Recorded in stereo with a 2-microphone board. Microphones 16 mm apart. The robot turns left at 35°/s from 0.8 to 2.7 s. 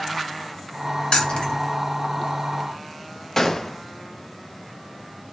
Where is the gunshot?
25° left (ahead or behind), 0.7 m.